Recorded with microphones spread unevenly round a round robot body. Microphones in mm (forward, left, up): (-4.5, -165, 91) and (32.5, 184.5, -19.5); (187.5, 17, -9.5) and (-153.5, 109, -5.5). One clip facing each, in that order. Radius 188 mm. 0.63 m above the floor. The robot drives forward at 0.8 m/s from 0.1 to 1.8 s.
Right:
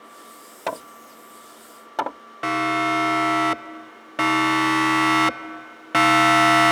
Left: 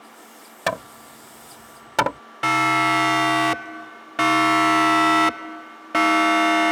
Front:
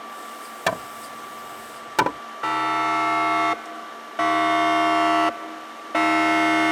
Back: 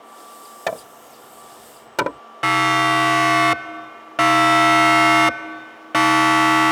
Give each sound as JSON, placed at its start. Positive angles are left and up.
{"t": 0.7, "sound": "hammering", "azimuth_deg": 40}
{"t": 2.4, "sound": "a siren", "azimuth_deg": 140}